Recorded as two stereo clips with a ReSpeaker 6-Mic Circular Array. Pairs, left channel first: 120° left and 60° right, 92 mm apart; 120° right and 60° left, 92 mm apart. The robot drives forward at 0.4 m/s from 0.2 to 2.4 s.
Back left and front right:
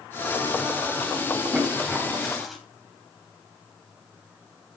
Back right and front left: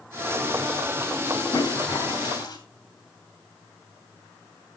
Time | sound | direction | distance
1.5 | a toilet flushing | 145° right | 2 m